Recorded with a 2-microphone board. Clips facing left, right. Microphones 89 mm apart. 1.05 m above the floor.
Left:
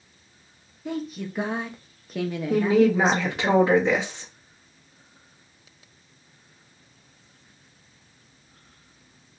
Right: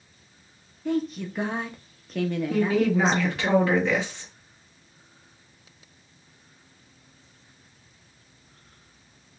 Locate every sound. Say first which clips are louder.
0.8 s a woman speaking: right 4 dB; 5° left (ahead or behind), 0.6 m
2.5 s a woman speaking: left 5 dB; 20° left (ahead or behind), 1.1 m